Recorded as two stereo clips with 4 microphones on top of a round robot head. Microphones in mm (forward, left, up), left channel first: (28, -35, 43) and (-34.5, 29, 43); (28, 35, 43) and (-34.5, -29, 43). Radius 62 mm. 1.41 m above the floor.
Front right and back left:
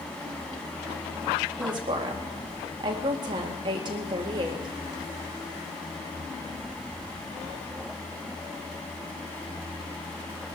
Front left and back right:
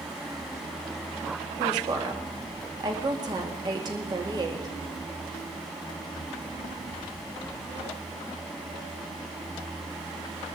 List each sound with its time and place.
1.6 s a woman speaking: 175° left, 2 m